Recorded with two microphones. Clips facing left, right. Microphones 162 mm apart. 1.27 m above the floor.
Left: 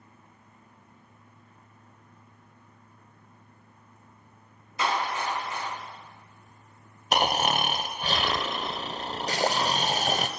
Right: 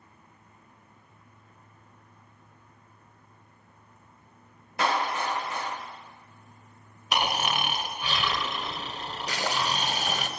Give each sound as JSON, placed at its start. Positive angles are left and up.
{"t": 4.8, "sound": "a clap", "side_deg": -65, "distance_m": 2.0}
{"t": 7.1, "sound": "snoring", "side_deg": 45, "distance_m": 0.5}
{"t": 9.3, "sound": "boiling", "side_deg": 40, "distance_m": 0.5}